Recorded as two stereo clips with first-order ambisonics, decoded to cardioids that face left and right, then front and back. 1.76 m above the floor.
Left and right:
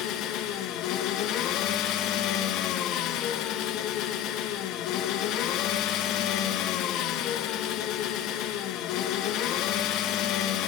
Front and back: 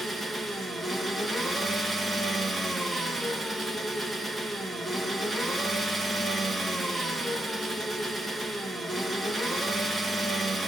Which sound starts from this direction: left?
An engine running, at 0.0 s.